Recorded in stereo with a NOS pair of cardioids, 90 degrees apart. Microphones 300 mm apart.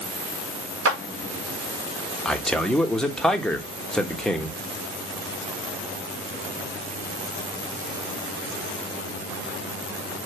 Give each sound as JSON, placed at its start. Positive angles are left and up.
{"t": 0.8, "sound": "a clap", "azimuth_deg": -45, "distance_m": 2.5}
{"t": 2.2, "sound": "a man speaking", "azimuth_deg": 0, "distance_m": 1.4}